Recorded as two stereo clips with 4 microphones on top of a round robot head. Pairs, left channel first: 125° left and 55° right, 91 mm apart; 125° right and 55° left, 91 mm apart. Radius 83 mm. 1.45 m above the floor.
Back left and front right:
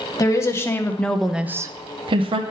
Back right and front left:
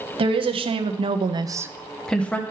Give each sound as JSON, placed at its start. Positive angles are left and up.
{"t": 0.2, "sound": "a woman speaking", "azimuth_deg": 70, "distance_m": 1.1}